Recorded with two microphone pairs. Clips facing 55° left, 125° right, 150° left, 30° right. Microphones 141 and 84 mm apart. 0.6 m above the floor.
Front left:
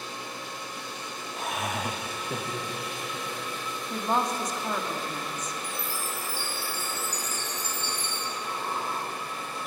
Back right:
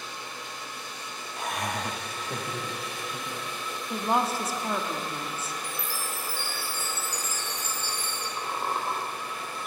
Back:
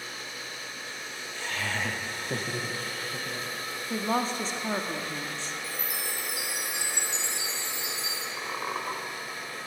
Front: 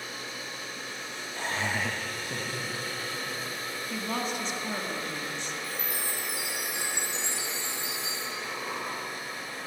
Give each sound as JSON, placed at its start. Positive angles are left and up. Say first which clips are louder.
{"t": 1.4, "sound": "laughter", "louder": "even, front 2 dB", "azimuth_deg": -30, "distance_m": 0.7}
{"t": 3.9, "sound": "a woman speaking", "louder": "back right 1 dB, back 5 dB", "azimuth_deg": 150, "distance_m": 0.8}
{"t": 5.6, "sound": "a chime", "louder": "front left 1 dB, front 1 dB", "azimuth_deg": 150, "distance_m": 2.5}
{"t": 8.4, "sound": "a squeak", "louder": "back right 3 dB, back 4 dB", "azimuth_deg": -160, "distance_m": 1.5}